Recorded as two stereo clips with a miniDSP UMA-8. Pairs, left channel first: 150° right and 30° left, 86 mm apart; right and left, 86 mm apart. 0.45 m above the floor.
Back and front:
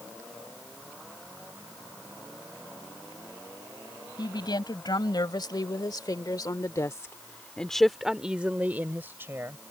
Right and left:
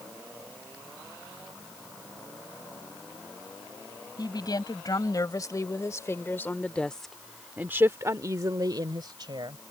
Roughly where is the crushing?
I don't hear crushing.